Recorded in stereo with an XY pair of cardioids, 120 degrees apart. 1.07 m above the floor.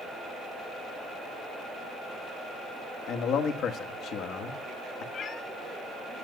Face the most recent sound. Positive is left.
turn(degrees=50)